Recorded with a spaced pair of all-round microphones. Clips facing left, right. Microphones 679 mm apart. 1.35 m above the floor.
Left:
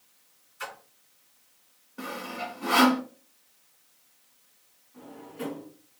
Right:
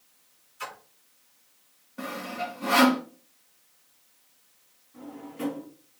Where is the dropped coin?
I don't hear a dropped coin.